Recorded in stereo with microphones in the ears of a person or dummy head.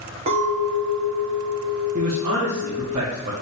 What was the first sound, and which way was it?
A clink, 35° right (ahead or behind).